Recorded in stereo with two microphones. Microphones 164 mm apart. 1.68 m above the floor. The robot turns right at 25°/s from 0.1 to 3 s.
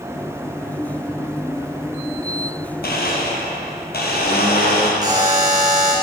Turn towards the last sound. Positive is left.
turn(degrees=-25)  # may be behind; listen again after turning